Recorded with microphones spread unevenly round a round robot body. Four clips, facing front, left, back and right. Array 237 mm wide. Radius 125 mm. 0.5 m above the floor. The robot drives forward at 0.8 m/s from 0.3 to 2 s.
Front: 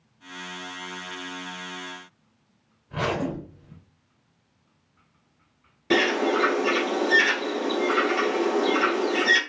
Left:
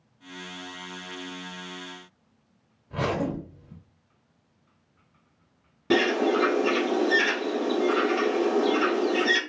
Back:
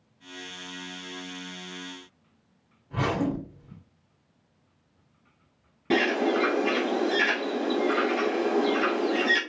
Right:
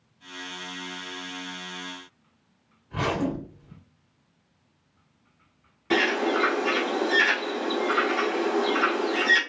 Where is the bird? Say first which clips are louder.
Left 2 dB, front 2 dB; 125° left, 1.3 m.